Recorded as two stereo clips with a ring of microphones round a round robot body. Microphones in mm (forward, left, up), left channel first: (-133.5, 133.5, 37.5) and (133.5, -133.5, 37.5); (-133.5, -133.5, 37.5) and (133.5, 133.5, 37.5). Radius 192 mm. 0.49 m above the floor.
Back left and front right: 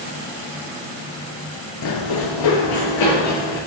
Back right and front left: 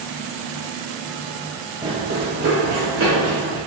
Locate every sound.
1.8 s running footsteps: 120° left, 0.5 m; by 3.6 s 100° left, 3 m